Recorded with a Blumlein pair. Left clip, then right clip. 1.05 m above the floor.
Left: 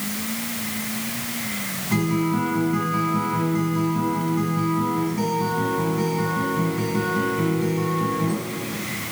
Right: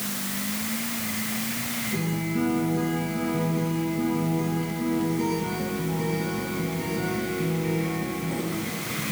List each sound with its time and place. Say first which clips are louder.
1.9 s a guitar: left 10 dB; 45° left, 4.5 m